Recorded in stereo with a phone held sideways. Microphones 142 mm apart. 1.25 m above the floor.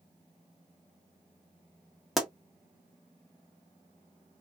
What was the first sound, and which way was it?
A pop, centre (ahead or behind).